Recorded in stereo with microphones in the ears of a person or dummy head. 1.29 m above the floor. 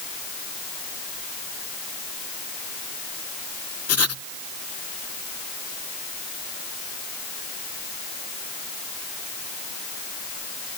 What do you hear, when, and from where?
3.9 s writing: 60° left (ahead or behind)